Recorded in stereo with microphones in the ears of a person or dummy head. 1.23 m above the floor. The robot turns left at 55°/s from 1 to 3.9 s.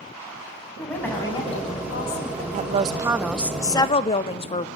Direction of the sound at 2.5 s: 135° right.